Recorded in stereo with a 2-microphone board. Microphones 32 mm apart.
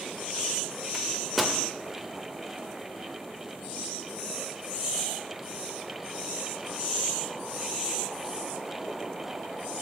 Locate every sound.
0.9 s a microwave: 5° right (ahead or behind), 0.7 m